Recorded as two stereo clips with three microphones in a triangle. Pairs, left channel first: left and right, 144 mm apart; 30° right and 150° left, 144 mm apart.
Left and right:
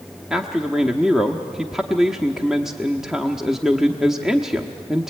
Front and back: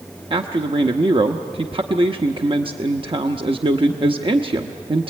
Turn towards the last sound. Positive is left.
turn(degrees=-175)